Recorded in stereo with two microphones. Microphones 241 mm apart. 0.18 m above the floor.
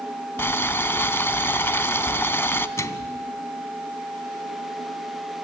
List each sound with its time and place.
0.4 s boiling: 10° left (ahead or behind), 0.7 m
2.8 s a microwave: 10° left (ahead or behind), 0.9 m